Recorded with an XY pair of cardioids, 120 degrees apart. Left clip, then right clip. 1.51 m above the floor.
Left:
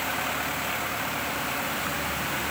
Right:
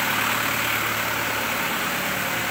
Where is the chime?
No chime in this recording.